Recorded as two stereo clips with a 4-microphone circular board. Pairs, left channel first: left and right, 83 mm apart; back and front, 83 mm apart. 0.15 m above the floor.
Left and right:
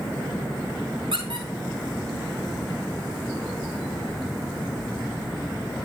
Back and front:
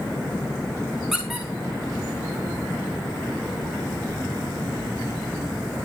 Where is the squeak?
90° right, 4.5 m.